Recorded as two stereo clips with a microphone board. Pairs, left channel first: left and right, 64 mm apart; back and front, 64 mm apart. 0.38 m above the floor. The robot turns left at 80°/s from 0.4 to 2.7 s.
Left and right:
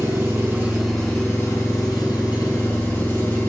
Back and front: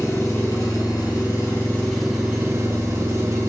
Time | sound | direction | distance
0.0 | an engine running | 140° right | 3.5 m